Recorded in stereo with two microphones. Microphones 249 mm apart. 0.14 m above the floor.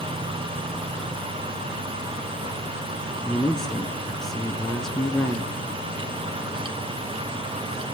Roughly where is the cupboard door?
I don't hear a cupboard door.